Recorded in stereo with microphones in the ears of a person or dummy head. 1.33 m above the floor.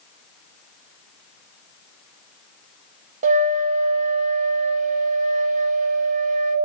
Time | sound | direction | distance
3.2 | a flute | 45° right (ahead or behind) | 1.0 m